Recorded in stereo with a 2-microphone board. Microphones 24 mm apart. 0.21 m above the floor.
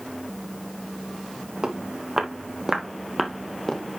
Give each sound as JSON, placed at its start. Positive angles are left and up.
{"t": 1.6, "sound": "footsteps", "side_deg": -35, "distance_m": 3.5}